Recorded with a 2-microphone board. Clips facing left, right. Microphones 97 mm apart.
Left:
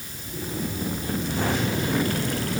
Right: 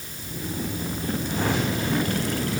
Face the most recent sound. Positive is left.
No sound to turn to.